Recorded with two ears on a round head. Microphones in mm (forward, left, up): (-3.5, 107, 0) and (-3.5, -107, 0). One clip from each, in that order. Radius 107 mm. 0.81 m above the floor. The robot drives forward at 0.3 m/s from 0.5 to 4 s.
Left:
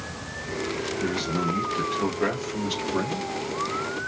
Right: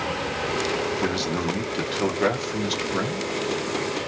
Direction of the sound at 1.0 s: 35° right (ahead or behind).